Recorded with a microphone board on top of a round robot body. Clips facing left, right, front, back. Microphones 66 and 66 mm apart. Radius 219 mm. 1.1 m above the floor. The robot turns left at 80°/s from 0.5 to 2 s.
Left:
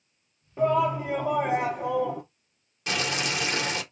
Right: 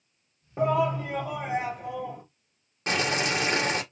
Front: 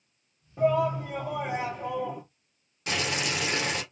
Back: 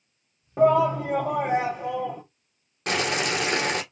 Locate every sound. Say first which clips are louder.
0.6 s a shout: left 1 dB, back 5 dB; 155° right, 0.9 m; by 2.2 s 90° left, 0.9 m
2.9 s boiling: right 2 dB, back 5 dB; 145° right, 1.4 m